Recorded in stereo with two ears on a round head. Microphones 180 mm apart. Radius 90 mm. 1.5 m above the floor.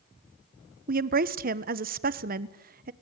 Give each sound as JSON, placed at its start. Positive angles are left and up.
{"t": 0.9, "sound": "a woman speaking", "side_deg": -45, "distance_m": 1.1}